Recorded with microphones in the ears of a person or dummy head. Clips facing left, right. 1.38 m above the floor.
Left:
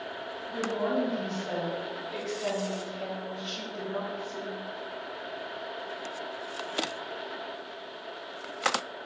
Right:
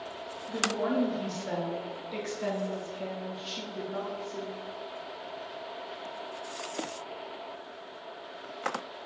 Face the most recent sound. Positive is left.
turn(degrees=-15)  # may be behind; listen again after turning